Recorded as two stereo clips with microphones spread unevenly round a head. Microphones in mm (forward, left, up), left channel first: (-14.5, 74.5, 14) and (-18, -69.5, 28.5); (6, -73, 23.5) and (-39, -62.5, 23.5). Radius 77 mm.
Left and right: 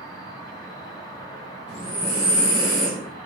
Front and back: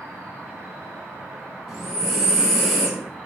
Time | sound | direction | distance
0.0 | an insect | 145° left | 0.8 m
1.7 | breathing | 110° right | 1.9 m